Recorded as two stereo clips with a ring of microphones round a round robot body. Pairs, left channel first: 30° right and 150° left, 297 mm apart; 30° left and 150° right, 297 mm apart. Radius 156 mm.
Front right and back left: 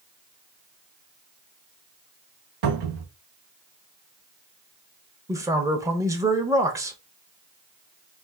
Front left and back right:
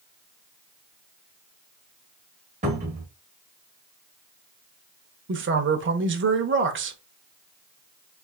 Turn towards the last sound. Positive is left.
turn(degrees=-135)